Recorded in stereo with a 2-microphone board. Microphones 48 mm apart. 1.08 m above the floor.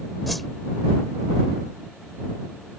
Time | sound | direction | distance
0.3 | a whoosh | centre (ahead or behind) | ?